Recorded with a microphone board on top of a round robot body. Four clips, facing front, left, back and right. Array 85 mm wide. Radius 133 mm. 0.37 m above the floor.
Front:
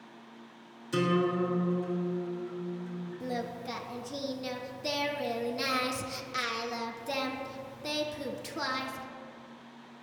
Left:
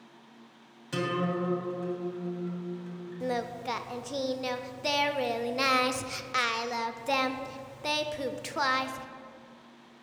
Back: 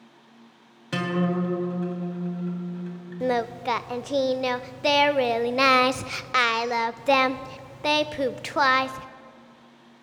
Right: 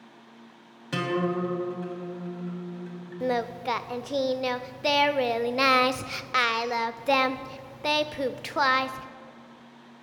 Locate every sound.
0.9 s a guitar: 155° right, 2.5 m
3.2 s singing: 160° right, 0.5 m